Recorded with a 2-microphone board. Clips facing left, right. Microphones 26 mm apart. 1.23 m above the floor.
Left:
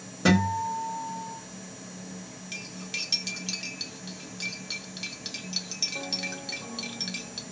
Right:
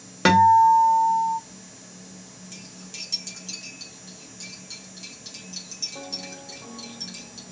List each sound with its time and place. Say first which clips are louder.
0.2 s a guitar: right 10 dB; 65° right (ahead or behind), 0.8 m
2.5 s cutlery clinking: left 7 dB; 45° left (ahead or behind), 0.8 m